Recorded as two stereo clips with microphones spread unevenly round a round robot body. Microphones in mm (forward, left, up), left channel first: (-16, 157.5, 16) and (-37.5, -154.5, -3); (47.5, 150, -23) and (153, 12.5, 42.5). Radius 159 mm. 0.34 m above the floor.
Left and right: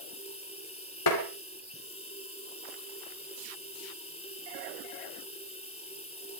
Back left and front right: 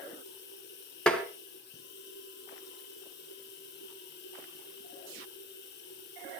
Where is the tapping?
50° left, 3 m.